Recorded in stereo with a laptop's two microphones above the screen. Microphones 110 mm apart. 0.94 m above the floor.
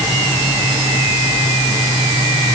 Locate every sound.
Only background noise.